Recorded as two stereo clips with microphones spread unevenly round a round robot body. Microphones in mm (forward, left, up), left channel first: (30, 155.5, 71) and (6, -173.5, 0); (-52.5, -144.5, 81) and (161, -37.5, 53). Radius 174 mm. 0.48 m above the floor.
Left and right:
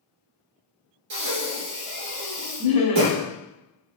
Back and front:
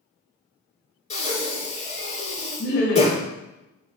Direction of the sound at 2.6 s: 160° left.